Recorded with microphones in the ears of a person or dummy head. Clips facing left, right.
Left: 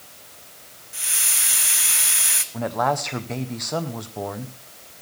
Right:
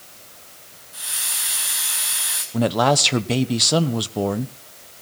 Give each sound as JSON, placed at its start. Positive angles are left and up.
{"t": 0.9, "sound": "a hiss", "side_deg": 35, "distance_m": 1.1}
{"t": 2.5, "sound": "a man speaking", "side_deg": -45, "distance_m": 1.0}